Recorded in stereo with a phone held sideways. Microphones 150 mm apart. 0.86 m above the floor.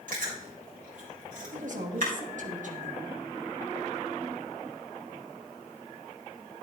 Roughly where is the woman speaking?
Right.